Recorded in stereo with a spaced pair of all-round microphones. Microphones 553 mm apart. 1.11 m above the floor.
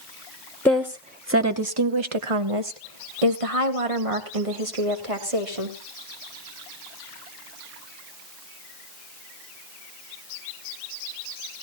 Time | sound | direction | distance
0.7 | a woman speaking | 5° left (ahead or behind) | 1.0 m